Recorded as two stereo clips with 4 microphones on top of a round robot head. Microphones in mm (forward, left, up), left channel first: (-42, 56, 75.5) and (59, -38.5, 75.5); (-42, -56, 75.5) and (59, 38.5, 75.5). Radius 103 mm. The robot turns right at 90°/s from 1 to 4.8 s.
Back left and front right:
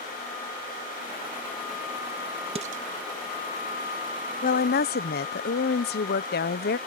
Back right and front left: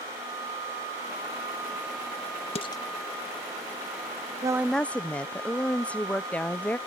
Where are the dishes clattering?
95° right; by 2.8 s 70° right.